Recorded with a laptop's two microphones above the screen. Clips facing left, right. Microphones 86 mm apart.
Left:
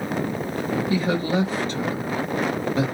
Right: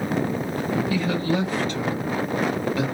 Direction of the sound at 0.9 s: 35° left (ahead or behind).